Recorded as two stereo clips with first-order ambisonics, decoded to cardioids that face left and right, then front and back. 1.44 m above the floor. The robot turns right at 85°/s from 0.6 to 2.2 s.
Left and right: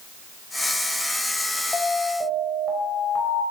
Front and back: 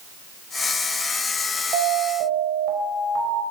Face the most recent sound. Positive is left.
turn(degrees=-160)